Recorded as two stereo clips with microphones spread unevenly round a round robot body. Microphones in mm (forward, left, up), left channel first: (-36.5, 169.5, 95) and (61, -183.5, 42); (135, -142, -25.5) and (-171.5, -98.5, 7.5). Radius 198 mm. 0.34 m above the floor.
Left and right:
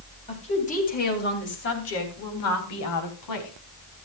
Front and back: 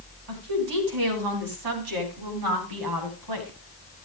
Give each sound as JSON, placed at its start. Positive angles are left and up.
{"t": 0.3, "sound": "a woman speaking", "azimuth_deg": 180, "distance_m": 3.0}